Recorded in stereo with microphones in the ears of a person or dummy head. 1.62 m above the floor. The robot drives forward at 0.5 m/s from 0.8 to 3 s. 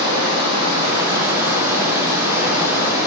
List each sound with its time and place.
0.0 s running water: 25° right (ahead or behind), 2.5 m; by 3.1 s 15° right (ahead or behind), 3.5 m